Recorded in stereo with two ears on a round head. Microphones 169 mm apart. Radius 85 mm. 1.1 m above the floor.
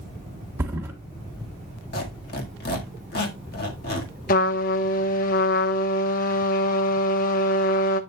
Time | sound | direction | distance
0.6 | a thud | 15° right (ahead or behind) | 1.6 m
1.9 | a squeak | 55° left (ahead or behind) | 1.7 m
4.3 | a trumpet | 45° left (ahead or behind) | 0.9 m